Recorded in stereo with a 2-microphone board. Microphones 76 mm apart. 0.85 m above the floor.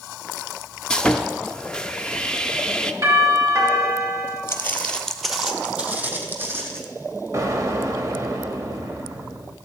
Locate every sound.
0.9 s sawing: 10° left (ahead or behind), 0.6 m
3.0 s a doorbell: 45° right (ahead or behind), 3 m
4.5 s footsteps: 35° left (ahead or behind), 1.0 m; by 6.8 s 30° right (ahead or behind), 2 m
7.3 s an explosion: 45° right (ahead or behind), 1.0 m